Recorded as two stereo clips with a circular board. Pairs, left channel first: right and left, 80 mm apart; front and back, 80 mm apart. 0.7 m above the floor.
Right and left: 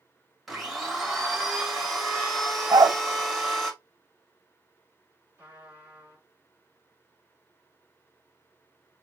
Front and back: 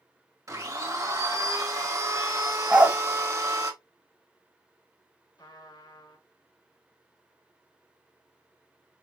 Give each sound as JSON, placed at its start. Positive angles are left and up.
{"t": 0.5, "sound": "a blender", "azimuth_deg": 180, "distance_m": 1.4}
{"t": 2.7, "sound": "a dog barking", "azimuth_deg": 110, "distance_m": 1.0}
{"t": 5.4, "sound": "a trumpet", "azimuth_deg": 25, "distance_m": 2.5}